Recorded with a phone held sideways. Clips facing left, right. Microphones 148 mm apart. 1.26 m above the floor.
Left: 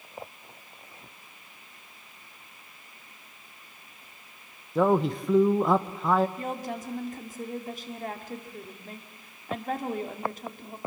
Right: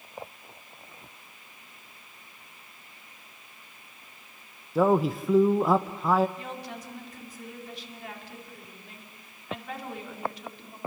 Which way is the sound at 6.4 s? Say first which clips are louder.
Left 5 dB; 45° left (ahead or behind).